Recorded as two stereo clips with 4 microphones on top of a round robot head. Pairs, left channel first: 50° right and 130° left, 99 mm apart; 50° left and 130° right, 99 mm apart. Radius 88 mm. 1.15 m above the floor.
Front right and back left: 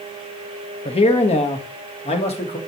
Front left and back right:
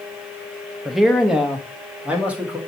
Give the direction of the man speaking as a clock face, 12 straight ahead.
1 o'clock.